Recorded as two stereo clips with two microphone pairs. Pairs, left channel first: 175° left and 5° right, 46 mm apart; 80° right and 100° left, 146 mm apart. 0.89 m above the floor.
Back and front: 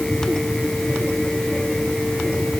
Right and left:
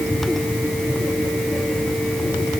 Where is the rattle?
I don't hear a rattle.